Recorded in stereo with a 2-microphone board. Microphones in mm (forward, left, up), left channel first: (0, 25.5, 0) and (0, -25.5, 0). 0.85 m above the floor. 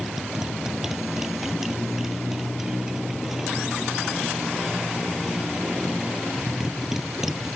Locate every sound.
0.0 s a motorcycle: 10° right (ahead or behind)